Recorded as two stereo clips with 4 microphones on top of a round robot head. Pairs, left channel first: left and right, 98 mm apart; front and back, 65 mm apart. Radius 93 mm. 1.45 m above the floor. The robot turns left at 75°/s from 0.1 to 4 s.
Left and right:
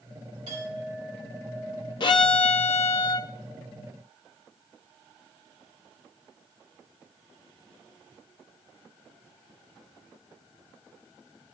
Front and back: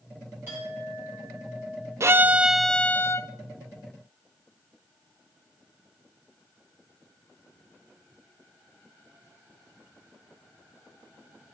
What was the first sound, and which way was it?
A clink, 120° right.